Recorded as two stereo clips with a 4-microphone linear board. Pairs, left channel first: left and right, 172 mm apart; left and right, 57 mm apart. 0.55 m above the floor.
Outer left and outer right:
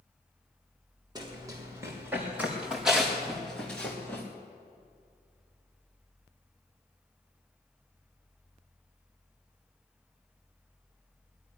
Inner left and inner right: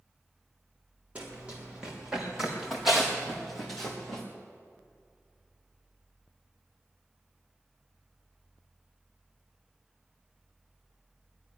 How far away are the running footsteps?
About 4 m.